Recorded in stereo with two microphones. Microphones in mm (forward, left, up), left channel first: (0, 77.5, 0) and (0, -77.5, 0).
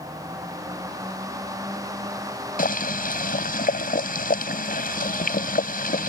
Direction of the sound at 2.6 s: 70° left (ahead or behind).